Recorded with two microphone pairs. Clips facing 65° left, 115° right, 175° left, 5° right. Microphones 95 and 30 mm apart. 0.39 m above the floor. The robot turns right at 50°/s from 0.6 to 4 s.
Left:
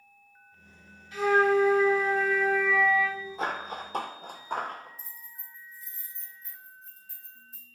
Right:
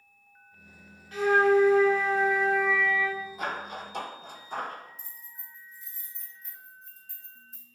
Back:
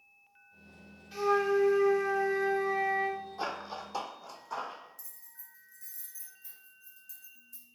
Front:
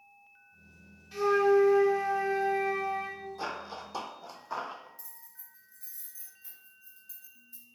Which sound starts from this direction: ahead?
Keys jangling, at 5.0 s.